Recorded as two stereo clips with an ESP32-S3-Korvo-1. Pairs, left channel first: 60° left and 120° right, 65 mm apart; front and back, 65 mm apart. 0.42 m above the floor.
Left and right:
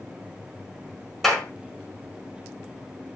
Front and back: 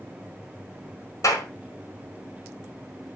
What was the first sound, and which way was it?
A clap, 25° right.